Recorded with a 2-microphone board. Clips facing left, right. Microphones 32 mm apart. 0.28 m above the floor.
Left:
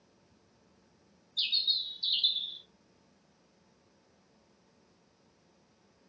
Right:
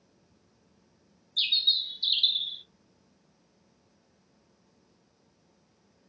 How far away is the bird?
About 0.7 m.